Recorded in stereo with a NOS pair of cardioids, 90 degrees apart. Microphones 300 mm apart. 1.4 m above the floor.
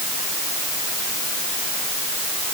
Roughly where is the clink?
I don't hear a clink.